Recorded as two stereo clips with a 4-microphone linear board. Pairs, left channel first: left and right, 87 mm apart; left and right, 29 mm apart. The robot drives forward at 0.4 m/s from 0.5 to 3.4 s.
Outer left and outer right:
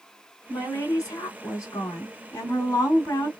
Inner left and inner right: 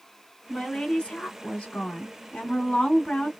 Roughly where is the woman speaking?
Left.